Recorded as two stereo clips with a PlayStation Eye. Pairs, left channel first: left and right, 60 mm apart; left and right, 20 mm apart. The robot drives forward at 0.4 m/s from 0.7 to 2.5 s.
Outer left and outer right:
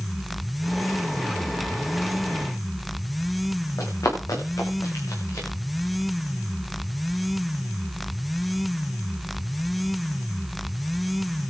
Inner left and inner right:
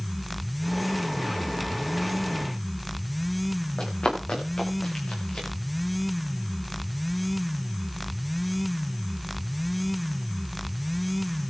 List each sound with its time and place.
3.8 s running footsteps: 70° left (ahead or behind), 9 m; by 5.5 s 55° left (ahead or behind), 10 m